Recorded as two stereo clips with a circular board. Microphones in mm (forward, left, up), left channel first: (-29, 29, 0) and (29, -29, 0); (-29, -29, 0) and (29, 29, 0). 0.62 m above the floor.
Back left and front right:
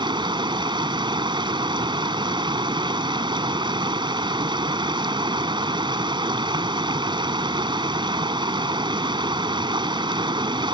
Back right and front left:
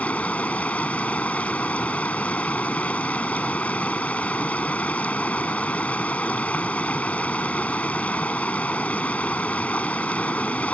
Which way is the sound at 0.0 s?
60° right.